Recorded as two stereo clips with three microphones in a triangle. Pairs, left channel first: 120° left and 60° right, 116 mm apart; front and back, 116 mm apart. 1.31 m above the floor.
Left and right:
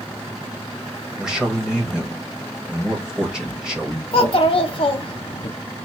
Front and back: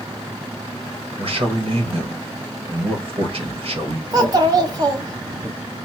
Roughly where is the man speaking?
Behind right.